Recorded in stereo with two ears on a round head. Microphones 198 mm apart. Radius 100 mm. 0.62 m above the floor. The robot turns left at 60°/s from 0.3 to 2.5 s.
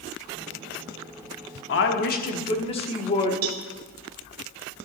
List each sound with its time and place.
1.7 s a woman speaking: 80° left, 1.1 m; by 3.3 s 30° left, 1.1 m
3.4 s a cowbell: 65° right (ahead or behind), 1.0 m